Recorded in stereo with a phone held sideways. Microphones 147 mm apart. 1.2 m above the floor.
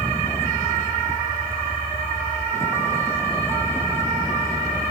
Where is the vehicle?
15° left (ahead or behind).